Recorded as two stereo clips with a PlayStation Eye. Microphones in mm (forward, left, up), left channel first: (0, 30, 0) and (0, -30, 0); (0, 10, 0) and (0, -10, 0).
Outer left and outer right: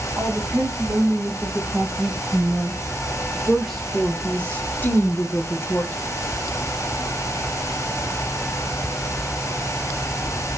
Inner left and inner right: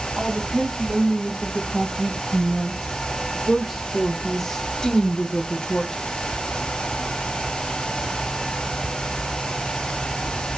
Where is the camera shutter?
I don't hear a camera shutter.